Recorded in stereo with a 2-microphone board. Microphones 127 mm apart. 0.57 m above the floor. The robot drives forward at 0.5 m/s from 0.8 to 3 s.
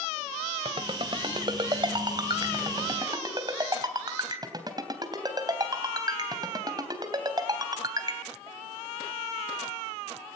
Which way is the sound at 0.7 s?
45° right (ahead or behind).